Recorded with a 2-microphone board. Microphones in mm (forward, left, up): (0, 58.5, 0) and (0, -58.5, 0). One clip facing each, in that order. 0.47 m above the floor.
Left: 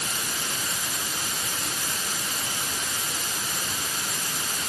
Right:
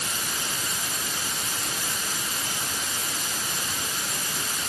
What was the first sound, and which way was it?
Only background noise.